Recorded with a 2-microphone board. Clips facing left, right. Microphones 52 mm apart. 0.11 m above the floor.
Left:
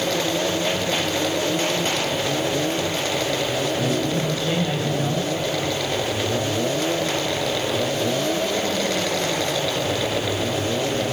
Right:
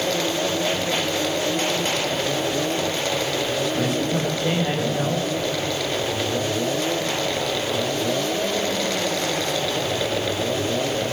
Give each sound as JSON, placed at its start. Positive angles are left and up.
{"t": 3.8, "sound": "a man speaking", "side_deg": -65, "distance_m": 8.5}